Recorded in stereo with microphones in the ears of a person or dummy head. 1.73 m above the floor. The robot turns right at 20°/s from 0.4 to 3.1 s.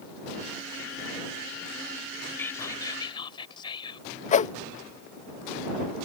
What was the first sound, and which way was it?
Whispering, 10° left (ahead or behind).